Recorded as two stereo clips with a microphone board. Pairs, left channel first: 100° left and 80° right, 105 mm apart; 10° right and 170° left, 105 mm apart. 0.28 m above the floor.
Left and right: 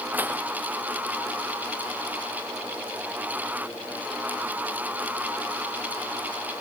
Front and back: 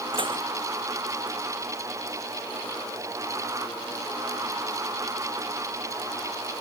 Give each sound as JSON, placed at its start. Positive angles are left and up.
{"t": 0.1, "sound": "dishes clattering", "azimuth_deg": -155}